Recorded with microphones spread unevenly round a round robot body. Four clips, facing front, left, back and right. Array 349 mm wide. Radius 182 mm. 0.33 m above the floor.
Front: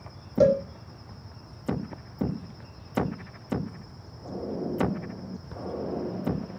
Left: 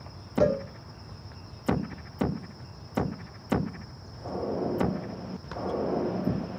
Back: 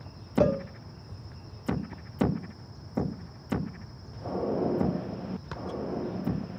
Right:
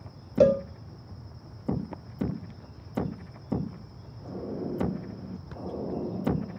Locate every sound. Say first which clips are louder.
0.4 s a cowbell: right 4 dB, front 5 dB; 60° right, 0.7 m